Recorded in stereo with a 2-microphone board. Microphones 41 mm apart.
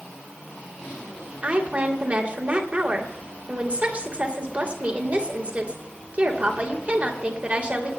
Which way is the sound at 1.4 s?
35° right (ahead or behind).